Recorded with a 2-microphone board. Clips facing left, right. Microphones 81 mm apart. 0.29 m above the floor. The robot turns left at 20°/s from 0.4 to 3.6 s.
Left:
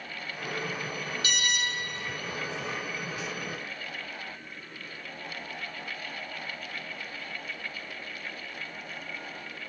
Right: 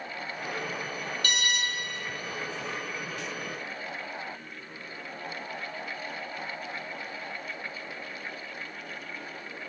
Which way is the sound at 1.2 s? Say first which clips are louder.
Right 1 dB; 65° right (ahead or behind).